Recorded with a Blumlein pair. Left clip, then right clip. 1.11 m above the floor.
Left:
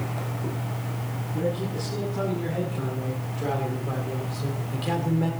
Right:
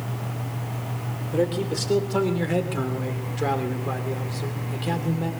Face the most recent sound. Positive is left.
turn(degrees=5)